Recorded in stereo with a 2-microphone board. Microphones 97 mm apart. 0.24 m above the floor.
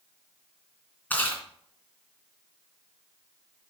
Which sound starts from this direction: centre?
Chewing, at 1.1 s.